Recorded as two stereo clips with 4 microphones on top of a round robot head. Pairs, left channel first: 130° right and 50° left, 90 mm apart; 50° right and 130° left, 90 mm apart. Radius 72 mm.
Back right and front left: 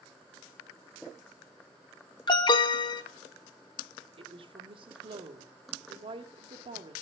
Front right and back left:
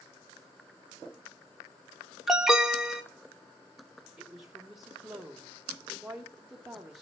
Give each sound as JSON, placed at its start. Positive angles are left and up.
{"t": 2.3, "sound": "an alarm", "azimuth_deg": -145, "distance_m": 1.8}
{"t": 4.2, "sound": "a woman speaking", "azimuth_deg": 45, "distance_m": 1.9}